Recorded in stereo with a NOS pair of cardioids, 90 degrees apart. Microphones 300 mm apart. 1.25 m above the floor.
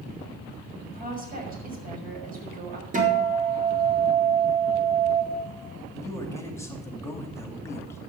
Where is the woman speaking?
30° right, 6.5 m.